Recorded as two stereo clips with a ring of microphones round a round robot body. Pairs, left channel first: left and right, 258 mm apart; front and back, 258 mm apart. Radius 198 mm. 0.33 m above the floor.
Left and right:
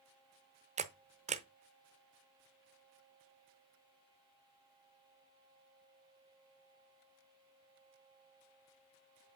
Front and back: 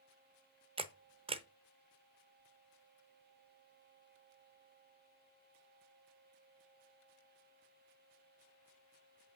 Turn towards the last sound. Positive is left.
turn(degrees=-130)